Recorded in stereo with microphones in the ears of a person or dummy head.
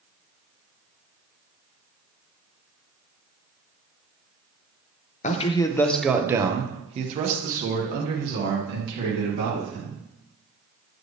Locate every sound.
5.2 s a man speaking: 35° left (ahead or behind), 0.8 m; by 10.0 s 65° right (ahead or behind), 3 m